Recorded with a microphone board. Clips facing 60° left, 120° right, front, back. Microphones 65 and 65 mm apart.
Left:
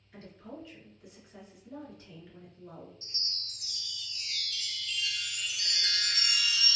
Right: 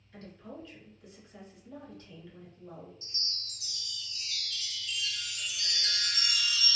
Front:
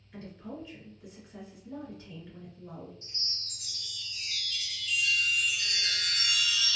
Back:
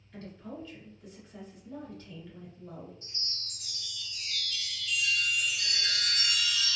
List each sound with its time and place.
0.1 s a woman speaking: 35° left, 1.3 m
3.0 s a chime: 90° left, 0.7 m